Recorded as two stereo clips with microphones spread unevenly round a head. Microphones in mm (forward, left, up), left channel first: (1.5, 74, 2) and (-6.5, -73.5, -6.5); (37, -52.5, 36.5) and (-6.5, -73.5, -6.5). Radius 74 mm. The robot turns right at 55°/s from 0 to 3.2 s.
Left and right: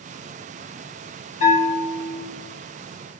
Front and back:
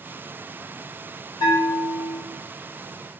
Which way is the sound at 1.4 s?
40° left.